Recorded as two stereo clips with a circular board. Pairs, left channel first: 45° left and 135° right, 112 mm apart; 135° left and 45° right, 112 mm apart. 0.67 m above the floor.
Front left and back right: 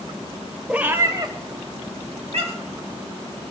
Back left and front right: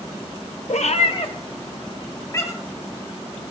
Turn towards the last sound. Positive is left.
turn(degrees=-155)